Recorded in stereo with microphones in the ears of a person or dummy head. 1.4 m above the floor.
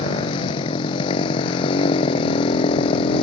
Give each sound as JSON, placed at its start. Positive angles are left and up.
{"t": 0.0, "sound": "a motorcycle", "side_deg": 30}